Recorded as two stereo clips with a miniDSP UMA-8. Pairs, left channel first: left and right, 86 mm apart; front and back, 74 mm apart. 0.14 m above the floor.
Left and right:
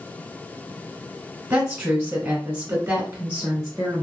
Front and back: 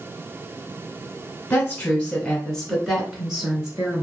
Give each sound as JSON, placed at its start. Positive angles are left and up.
{"t": 1.5, "sound": "a woman speaking", "azimuth_deg": -30, "distance_m": 1.4}